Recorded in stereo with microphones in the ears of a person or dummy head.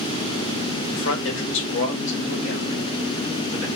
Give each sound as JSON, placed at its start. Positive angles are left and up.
{"t": 0.9, "sound": "a man speaking", "side_deg": 80, "distance_m": 1.4}